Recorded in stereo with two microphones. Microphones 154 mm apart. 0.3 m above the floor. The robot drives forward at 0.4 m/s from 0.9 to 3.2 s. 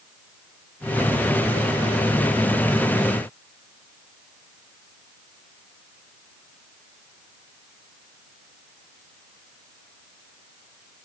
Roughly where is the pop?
I don't hear a pop.